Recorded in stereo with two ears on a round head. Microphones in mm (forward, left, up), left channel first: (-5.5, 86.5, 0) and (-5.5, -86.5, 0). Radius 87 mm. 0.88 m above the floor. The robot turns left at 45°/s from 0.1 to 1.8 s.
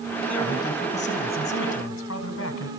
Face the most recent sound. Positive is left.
turn(degrees=105)